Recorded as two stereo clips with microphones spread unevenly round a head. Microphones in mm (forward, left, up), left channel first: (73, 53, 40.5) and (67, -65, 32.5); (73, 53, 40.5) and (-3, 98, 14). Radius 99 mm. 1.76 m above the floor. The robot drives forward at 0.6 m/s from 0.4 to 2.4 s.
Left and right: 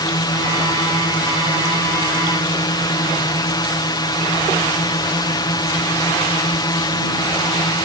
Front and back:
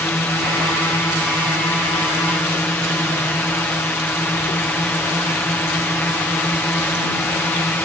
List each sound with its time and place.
0.0 s a drone: 40° left